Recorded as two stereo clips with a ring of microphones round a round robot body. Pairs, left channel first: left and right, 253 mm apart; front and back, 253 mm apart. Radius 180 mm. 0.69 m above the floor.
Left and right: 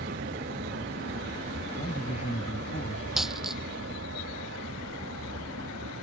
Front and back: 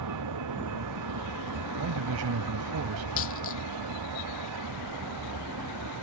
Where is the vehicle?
155° right; by 6.0 s 150° right.